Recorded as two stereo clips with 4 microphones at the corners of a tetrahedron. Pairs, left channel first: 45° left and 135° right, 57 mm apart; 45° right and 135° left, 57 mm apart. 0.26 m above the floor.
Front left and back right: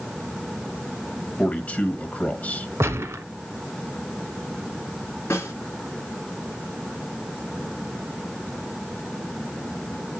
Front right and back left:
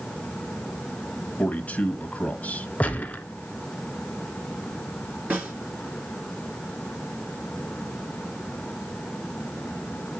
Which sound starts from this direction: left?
A snare drum, at 5.3 s.